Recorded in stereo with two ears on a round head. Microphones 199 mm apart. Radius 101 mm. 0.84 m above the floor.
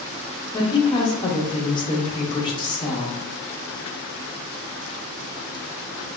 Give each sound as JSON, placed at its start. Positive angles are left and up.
{"t": 0.5, "sound": "a woman speaking", "side_deg": 20, "distance_m": 0.6}